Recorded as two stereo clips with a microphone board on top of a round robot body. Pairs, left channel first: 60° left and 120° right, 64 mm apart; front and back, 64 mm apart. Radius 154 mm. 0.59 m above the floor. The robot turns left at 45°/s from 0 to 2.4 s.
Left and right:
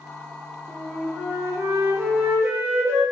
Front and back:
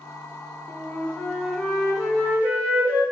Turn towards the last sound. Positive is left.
turn(degrees=-125)